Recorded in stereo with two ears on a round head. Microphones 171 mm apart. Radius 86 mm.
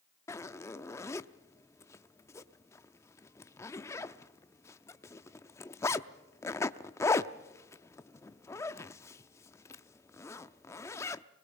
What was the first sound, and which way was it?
A zipper, 15° left (ahead or behind).